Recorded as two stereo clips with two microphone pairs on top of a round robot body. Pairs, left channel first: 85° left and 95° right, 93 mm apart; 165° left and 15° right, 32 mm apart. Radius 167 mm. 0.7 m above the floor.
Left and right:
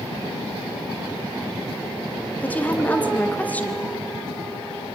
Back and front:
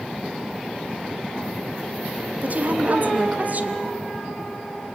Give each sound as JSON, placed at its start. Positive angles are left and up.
{"t": 2.4, "sound": "a woman speaking", "azimuth_deg": 15, "distance_m": 1.1}